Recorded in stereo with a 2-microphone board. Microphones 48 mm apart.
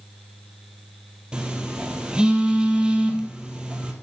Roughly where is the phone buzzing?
Centre.